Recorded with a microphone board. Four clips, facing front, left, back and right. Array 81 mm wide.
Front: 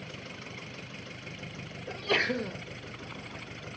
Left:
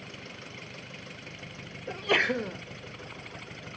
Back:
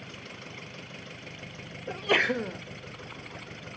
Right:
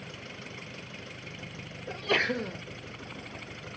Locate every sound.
1.9 s a sneeze: 155° left, 0.6 m